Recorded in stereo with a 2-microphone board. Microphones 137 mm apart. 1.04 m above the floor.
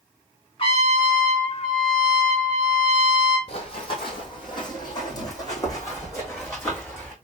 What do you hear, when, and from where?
0.6 s a trumpet: 45° left (ahead or behind), 2 m
3.5 s running footsteps: 45° left (ahead or behind), 2.0 m; by 7.1 s 15° left (ahead or behind), 3.5 m